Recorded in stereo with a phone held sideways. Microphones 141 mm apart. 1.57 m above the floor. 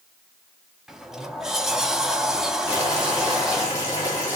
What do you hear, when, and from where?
0.9 s a sliding door: 5° right (ahead or behind), 0.7 m
2.7 s boiling: 25° left (ahead or behind), 4 m